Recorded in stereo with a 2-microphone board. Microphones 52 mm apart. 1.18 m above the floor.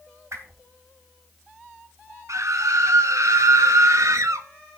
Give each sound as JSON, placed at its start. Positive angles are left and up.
{"t": 0.3, "sound": "a whoosh", "side_deg": -65, "distance_m": 3.0}
{"t": 2.3, "sound": "a scream", "side_deg": -80, "distance_m": 1.5}